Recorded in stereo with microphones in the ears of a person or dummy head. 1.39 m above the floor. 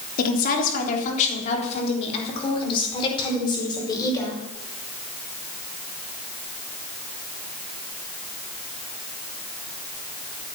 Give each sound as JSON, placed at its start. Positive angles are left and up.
{"t": 0.2, "sound": "a woman speaking", "side_deg": 55, "distance_m": 3.5}